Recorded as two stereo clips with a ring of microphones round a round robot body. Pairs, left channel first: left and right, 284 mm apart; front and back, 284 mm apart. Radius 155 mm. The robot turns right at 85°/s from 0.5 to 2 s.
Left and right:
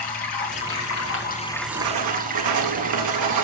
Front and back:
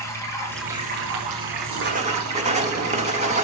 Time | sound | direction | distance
0.0 | running water | 80° left | 3 m
1.7 | writing | 140° right | 1.8 m